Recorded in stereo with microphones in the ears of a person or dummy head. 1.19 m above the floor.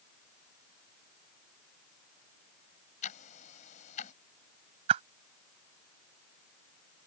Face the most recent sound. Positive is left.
turn(degrees=-30)  # may be behind; listen again after turning